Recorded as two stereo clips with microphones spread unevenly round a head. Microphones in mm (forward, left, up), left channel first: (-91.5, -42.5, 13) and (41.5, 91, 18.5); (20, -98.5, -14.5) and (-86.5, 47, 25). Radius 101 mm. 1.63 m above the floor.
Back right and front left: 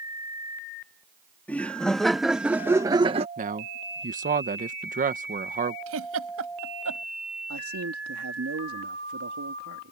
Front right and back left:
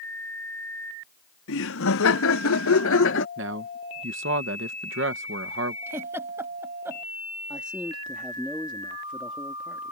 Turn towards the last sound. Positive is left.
turn(degrees=40)